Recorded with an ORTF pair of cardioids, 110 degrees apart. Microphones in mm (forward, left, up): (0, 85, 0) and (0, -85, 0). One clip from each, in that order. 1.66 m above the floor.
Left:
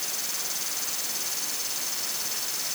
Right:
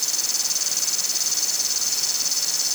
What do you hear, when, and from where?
0.0 s an insect: 55° right